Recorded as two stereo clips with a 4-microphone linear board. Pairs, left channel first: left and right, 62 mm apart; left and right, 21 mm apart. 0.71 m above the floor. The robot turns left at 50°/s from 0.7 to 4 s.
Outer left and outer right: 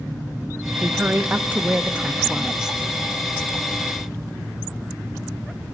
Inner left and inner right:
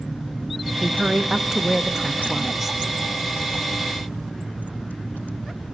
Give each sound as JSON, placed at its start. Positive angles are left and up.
{"t": 0.8, "sound": "a woman speaking", "side_deg": -20, "distance_m": 0.5}